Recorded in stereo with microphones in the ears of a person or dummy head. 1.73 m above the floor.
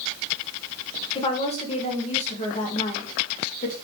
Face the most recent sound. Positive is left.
turn(degrees=45)  # may be behind; listen again after turning